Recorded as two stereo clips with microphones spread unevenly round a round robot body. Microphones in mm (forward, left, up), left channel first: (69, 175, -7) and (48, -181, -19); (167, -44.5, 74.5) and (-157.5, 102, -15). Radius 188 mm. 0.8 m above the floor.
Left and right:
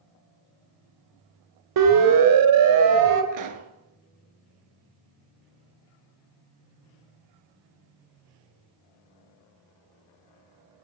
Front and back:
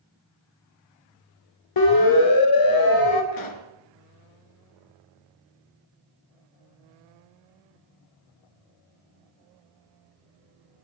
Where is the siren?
65° right, 3.5 m; by 3.2 s 60° right, 4.5 m.